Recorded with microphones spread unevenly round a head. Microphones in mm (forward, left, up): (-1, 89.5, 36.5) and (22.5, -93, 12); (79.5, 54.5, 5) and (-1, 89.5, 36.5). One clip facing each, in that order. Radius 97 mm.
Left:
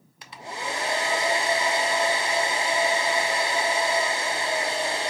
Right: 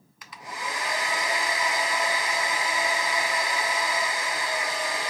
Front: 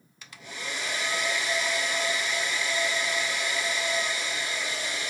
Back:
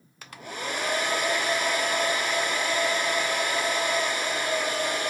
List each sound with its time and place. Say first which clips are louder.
0.2 s a hair dryer: left 3 dB, back 5 dB; 145° left, 0.7 m